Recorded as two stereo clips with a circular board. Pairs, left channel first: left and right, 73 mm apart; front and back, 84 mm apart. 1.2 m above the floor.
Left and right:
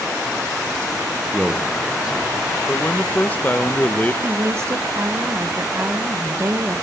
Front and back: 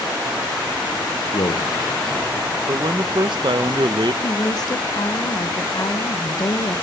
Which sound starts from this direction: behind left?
A man speaking, at 2.7 s.